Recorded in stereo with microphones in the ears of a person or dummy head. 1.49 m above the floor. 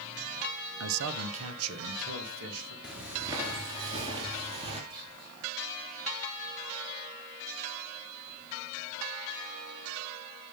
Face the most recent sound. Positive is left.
turn(degrees=-50)  # may be behind; listen again after turning